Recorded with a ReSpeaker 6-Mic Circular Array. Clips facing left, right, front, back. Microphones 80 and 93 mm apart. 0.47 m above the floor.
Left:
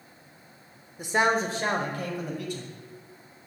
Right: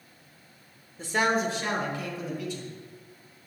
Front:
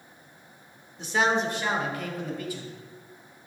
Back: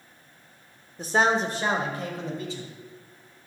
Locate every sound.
1.0 s a man speaking: 160° left, 1.0 m; by 2.7 s 115° left, 2.5 m